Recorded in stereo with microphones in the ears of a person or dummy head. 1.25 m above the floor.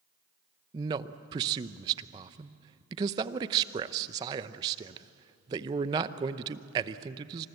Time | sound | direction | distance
0.7 | a man speaking | 25° right (ahead or behind) | 0.7 m